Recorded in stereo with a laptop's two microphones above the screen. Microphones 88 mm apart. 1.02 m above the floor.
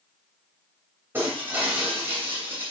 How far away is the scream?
No scream in this recording.